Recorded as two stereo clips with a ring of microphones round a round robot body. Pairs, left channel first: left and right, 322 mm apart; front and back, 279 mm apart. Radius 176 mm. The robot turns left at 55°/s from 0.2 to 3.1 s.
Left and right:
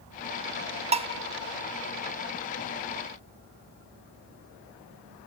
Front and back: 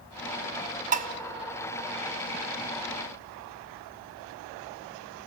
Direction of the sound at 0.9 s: 145° right.